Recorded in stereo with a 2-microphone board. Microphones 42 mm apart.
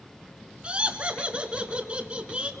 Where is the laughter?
30° right (ahead or behind), 1.1 m.